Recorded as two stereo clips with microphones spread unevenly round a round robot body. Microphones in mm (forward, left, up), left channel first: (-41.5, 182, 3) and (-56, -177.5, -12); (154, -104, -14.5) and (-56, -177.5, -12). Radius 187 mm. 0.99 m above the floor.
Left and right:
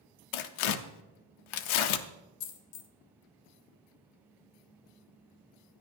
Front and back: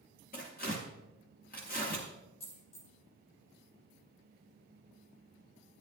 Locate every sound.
0.3 s tearing paper: 90° left, 0.6 m
2.4 s a dropped coin: 80° left, 0.9 m